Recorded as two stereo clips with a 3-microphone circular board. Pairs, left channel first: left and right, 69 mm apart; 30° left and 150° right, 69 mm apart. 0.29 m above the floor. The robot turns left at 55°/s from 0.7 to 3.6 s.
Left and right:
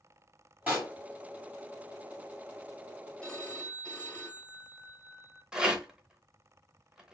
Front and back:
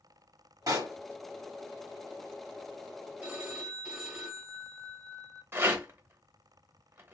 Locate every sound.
0.7 s a pop: 145° right, 1.6 m; by 0.9 s 160° right, 1.6 m
3.2 s a phone ringing: 150° left, 1.0 m; by 5.4 s 130° left, 1.0 m
5.5 s a rattle: 165° right, 0.7 m